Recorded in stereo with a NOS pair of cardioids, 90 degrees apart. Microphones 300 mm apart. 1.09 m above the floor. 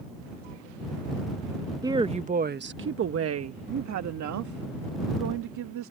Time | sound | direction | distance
1.8 | a woman speaking | 10° right | ?